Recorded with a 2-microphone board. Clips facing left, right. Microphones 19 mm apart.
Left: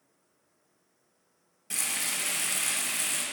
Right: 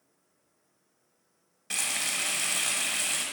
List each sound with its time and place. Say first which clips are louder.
1.7 s frying: right 2 dB; 35° right (ahead or behind), 1.1 m